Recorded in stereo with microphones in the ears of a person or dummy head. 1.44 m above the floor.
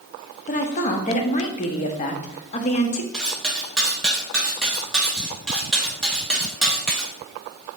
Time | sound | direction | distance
0.5 | a woman speaking | 35° left (ahead or behind) | 0.6 m
3.1 | cutlery clinking | 5° left (ahead or behind) | 1.2 m